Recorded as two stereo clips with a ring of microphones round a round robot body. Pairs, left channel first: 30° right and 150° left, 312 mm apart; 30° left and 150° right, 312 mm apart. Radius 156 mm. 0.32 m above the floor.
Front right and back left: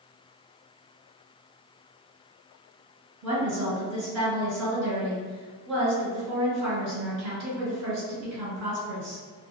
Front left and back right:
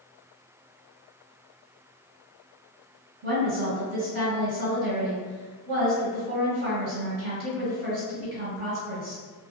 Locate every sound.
3.2 s a woman speaking: 170° left, 1.7 m